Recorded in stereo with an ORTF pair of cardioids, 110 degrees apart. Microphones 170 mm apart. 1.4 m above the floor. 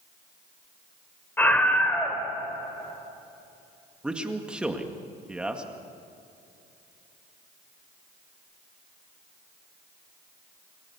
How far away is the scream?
About 4.5 m.